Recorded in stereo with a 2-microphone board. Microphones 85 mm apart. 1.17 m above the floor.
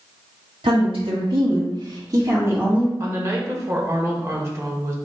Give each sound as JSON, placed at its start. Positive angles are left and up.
{"t": 0.6, "sound": "a woman speaking", "side_deg": -90, "distance_m": 1.9}
{"t": 3.0, "sound": "a woman speaking", "side_deg": -35, "distance_m": 1.2}